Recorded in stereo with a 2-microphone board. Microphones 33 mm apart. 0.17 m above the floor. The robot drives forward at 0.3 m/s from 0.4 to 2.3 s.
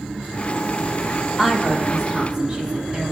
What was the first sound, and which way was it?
A woman speaking, 20° right (ahead or behind).